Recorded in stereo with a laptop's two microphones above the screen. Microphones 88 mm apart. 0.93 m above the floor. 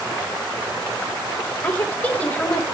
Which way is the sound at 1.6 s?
15° left (ahead or behind).